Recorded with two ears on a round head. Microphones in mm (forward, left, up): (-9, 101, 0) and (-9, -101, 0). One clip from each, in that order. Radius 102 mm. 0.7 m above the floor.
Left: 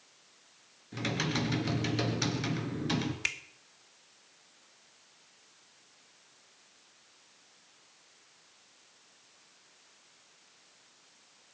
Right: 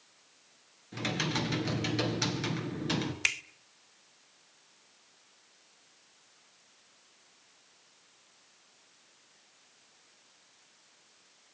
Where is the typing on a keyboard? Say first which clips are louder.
Right 1 dB; 5° right (ahead or behind), 2 m.